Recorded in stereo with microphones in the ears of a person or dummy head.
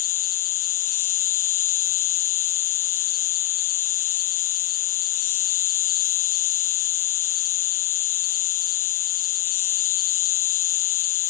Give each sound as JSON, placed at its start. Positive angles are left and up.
{"t": 0.0, "sound": "an insect", "side_deg": 50}